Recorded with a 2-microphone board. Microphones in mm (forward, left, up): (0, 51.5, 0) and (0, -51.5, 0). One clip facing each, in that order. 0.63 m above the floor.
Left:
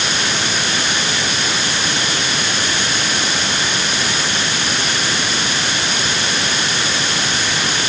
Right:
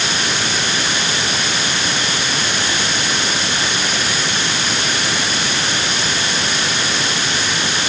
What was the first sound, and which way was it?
Only background noise.